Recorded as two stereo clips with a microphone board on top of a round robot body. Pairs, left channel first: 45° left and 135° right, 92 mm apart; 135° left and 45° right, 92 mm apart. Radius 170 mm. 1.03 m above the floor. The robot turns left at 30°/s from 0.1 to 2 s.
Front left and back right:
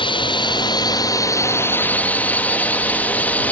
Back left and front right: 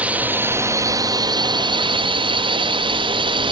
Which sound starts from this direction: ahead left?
A drone, at 0.0 s.